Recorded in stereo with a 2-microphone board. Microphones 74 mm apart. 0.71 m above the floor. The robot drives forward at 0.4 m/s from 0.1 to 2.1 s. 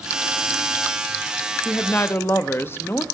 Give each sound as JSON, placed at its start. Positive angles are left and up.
{"t": 1.6, "sound": "a woman speaking", "side_deg": 25, "distance_m": 0.7}